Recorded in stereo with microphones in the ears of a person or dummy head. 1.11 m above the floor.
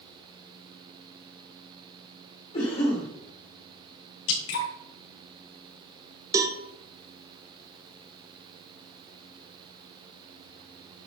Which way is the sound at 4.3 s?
80° left.